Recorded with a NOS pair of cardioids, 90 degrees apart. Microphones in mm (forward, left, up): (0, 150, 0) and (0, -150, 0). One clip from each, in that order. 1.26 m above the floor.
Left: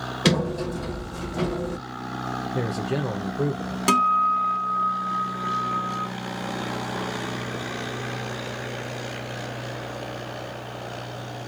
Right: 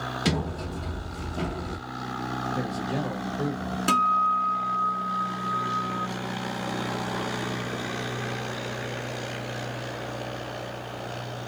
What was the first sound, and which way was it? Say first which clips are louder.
A sliding door: left 10 dB; 45° left.